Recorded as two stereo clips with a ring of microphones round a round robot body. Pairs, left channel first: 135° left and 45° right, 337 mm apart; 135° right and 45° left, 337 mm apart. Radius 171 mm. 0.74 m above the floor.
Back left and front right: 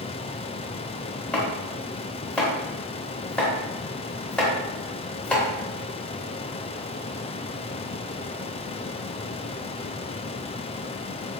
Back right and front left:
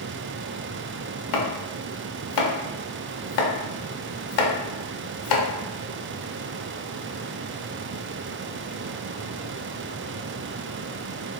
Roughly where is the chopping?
Behind right.